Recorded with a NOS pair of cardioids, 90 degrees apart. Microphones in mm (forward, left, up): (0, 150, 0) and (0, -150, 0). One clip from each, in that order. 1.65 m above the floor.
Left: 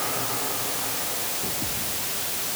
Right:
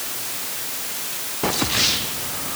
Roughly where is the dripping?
No dripping in this recording.